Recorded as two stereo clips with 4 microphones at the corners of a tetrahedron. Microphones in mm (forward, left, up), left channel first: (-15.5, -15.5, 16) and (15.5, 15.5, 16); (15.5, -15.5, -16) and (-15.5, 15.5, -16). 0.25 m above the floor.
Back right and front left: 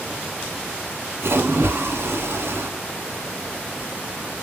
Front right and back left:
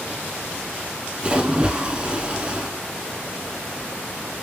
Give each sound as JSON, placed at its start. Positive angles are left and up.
{"t": 1.2, "sound": "a splash", "azimuth_deg": 65, "distance_m": 0.8}